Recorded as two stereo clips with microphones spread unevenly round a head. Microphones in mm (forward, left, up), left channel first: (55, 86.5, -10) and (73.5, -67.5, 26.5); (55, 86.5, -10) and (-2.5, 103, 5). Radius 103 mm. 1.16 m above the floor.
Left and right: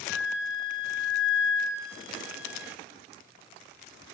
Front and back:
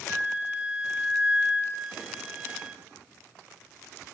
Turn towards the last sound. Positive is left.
turn(degrees=100)